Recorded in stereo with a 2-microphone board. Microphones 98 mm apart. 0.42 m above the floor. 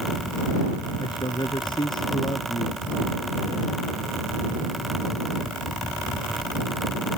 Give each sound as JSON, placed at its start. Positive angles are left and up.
{"t": 1.0, "sound": "a man speaking", "side_deg": 50}